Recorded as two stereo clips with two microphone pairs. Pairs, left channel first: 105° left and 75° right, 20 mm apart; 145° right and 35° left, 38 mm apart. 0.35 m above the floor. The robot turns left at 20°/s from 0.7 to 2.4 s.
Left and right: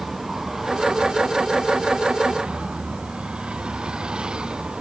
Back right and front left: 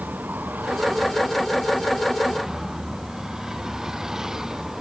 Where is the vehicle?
5° right; by 4.8 s 40° right.